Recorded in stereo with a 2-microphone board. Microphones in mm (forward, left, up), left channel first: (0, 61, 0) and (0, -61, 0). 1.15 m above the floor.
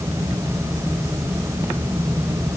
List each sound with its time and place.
Only background noise.